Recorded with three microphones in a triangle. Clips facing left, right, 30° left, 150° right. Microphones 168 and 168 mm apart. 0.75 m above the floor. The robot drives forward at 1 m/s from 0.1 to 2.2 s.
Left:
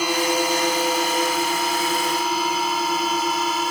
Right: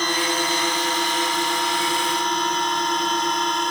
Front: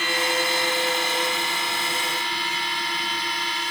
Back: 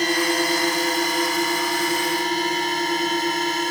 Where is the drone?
170° left; by 3.7 s 175° left.